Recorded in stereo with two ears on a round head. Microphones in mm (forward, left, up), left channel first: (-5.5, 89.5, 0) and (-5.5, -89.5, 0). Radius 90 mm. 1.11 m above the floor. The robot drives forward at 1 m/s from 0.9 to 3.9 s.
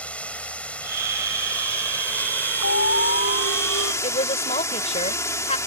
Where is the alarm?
65° left (ahead or behind); by 3.9 s 80° left.